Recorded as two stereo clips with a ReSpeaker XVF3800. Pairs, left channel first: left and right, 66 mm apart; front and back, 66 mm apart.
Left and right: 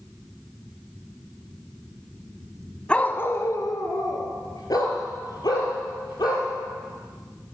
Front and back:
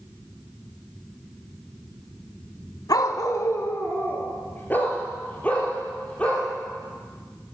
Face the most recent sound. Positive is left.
turn(degrees=75)